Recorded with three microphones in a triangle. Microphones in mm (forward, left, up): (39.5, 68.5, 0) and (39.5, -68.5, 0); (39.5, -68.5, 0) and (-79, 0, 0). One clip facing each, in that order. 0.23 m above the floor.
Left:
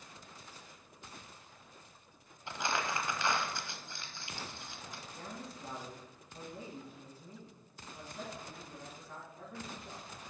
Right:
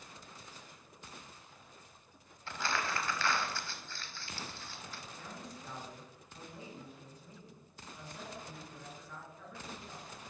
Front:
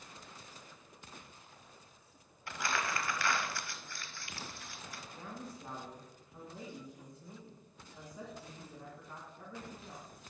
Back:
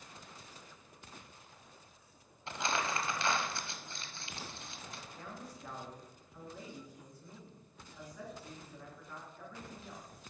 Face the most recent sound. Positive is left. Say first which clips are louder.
# left 4 dB, front 4 dB
turn(degrees=35)